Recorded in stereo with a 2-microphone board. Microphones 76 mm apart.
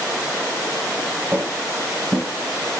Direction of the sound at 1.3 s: 45° right (ahead or behind).